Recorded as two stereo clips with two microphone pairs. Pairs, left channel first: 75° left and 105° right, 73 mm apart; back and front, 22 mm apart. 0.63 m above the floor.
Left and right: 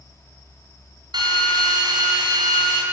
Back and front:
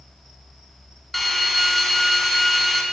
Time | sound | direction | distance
1.1 | a drill | 95° right | 4 m